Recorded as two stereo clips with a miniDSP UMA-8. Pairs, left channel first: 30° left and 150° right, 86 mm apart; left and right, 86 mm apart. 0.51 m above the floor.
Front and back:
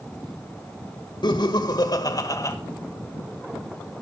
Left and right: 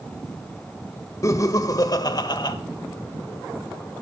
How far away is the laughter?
About 2.5 m.